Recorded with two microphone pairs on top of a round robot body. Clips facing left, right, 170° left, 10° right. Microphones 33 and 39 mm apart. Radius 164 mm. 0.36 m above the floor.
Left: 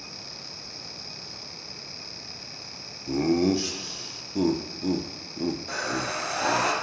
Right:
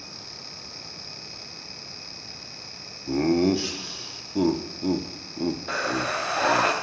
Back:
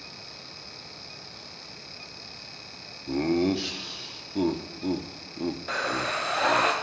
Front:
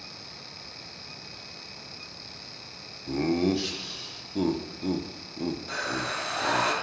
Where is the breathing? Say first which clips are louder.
Right 3 dB, back 6 dB; 140° right, 1.4 m.